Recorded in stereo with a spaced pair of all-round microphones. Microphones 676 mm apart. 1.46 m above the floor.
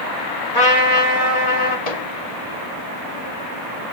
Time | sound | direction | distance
0.5 | a trumpet | 35° left (ahead or behind) | 5 m
1.9 | a microwave | 65° left (ahead or behind) | 2.5 m